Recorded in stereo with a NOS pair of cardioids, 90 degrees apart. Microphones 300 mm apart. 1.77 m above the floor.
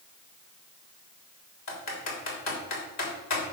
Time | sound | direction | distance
1.7 | typing on a keyboard | 65° left | 3.5 m